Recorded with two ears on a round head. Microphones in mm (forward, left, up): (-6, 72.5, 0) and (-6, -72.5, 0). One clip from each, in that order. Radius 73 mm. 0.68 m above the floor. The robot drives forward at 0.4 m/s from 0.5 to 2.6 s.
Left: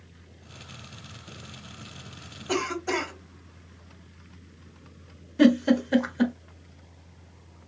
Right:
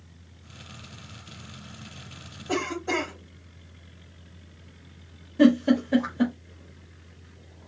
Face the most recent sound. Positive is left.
turn(degrees=35)  # may be behind; listen again after turning